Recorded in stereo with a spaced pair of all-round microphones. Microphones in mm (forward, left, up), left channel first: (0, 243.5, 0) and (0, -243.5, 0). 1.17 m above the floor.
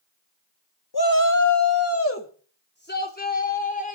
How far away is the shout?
About 1.5 m.